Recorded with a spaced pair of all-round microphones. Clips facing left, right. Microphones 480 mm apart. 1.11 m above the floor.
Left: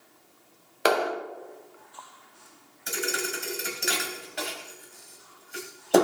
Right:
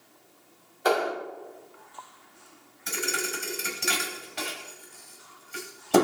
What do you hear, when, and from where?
0.8 s a clap: 90° left, 2.5 m
2.9 s a thud: 20° right (ahead or behind), 1.9 m